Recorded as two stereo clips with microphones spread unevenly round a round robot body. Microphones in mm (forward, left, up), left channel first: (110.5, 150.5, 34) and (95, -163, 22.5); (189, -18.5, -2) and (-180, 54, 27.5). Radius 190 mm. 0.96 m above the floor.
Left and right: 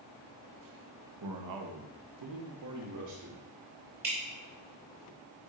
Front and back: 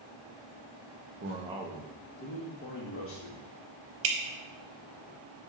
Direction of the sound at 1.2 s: 130° right.